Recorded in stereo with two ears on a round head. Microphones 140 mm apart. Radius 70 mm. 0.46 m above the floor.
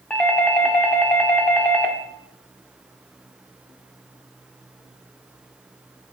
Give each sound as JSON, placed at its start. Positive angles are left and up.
{"t": 0.1, "sound": "a doorbell", "side_deg": 10, "distance_m": 1.2}